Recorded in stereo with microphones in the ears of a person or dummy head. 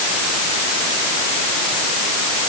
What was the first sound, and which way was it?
Only background noise.